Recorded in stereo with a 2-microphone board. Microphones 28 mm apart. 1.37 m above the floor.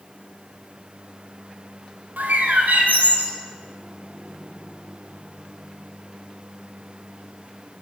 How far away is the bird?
About 1.9 m.